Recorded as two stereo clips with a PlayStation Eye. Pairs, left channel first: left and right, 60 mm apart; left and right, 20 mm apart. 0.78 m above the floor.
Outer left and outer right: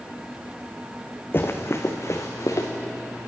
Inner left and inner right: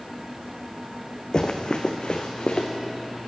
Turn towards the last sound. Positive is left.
turn(degrees=60)  # may be behind; listen again after turning